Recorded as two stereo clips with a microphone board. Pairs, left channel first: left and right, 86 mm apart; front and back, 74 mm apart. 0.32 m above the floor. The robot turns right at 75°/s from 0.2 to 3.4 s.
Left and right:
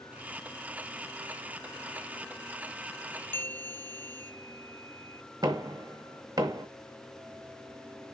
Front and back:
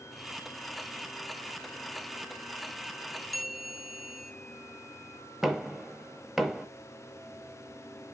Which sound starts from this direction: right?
Knocking, at 5.4 s.